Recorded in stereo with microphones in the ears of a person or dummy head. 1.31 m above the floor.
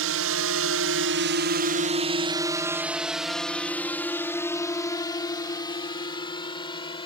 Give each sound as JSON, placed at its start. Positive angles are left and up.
{"t": 0.0, "sound": "a drone", "side_deg": -65}